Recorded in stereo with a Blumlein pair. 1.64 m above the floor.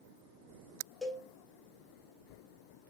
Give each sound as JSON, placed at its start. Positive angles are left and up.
{"t": 1.0, "sound": "a cowbell", "azimuth_deg": 0, "distance_m": 1.0}